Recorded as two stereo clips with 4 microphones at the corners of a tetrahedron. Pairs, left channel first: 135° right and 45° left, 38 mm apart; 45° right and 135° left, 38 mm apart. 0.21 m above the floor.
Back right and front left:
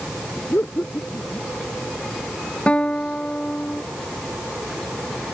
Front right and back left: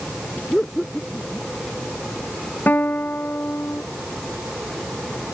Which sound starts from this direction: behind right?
Laughter, at 0.5 s.